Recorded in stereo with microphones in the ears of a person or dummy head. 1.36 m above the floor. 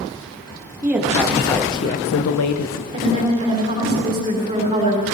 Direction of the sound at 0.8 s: 10° right (ahead or behind).